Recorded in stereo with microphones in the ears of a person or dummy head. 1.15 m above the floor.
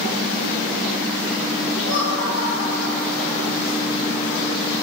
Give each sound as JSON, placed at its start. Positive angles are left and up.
{"t": 1.8, "sound": "laughter", "side_deg": 35, "distance_m": 3.0}